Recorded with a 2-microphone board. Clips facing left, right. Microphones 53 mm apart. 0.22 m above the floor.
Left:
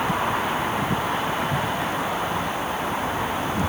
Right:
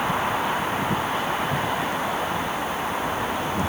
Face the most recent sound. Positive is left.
No sound to turn to.